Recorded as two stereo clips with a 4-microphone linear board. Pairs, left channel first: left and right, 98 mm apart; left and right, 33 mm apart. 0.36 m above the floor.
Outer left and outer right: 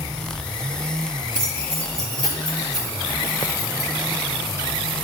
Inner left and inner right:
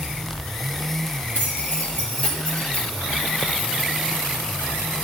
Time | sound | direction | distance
1.4 | keys jangling | 60° left (ahead or behind) | 4.5 m